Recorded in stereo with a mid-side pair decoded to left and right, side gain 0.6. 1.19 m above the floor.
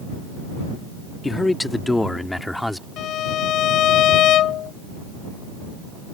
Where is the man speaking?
15° left; by 2.9 s 5° left.